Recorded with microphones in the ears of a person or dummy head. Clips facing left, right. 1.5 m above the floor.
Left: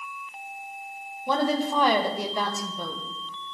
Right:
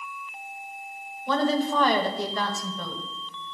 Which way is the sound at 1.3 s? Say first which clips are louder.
Right 1 dB; 10° left (ahead or behind).